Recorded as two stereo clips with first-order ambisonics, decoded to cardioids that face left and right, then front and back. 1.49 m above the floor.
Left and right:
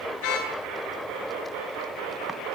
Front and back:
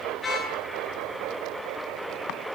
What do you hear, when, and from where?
0.2 s a car horn: 80° left, 9.5 m